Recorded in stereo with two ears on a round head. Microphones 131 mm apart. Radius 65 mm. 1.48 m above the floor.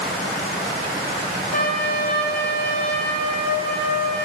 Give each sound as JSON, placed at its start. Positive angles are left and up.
{"t": 1.5, "sound": "a trumpet", "side_deg": 65, "distance_m": 2.0}